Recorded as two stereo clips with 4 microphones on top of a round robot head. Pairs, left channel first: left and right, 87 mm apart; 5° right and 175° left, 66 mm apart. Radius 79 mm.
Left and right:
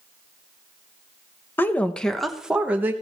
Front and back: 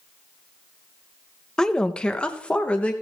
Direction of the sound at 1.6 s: 60° left.